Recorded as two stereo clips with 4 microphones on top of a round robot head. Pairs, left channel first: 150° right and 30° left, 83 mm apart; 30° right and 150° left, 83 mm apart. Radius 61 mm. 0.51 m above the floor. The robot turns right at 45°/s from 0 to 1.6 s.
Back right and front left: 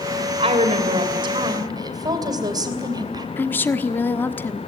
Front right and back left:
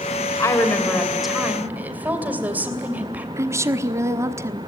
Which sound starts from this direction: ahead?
A woman speaking, at 0.4 s.